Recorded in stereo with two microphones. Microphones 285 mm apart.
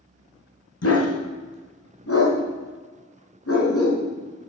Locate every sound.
0.8 s a dog barking: 55° left (ahead or behind), 1.9 m